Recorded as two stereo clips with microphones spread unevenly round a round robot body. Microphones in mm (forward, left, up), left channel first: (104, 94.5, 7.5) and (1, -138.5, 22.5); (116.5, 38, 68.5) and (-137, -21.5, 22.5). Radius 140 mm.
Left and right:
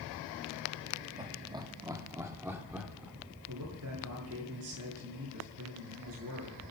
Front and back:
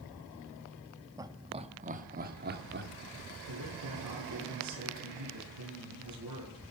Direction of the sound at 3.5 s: 155° right.